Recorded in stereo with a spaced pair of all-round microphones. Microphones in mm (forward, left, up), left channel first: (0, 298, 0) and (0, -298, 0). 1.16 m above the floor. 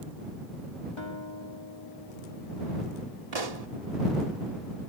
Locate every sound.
1.0 s a guitar: 50° left (ahead or behind)
3.3 s a pop: 80° right